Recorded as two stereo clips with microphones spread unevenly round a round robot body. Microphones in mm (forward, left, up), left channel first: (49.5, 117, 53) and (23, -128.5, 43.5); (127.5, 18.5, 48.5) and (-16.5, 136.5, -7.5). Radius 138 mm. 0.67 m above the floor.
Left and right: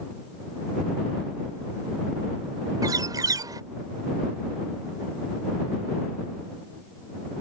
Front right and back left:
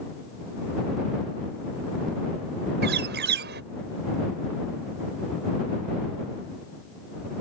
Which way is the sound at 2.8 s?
175° right.